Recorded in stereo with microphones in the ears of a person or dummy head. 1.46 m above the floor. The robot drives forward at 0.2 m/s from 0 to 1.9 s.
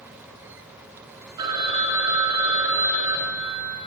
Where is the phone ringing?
25° right (ahead or behind), 0.6 m; by 3.8 s 20° right (ahead or behind), 0.6 m.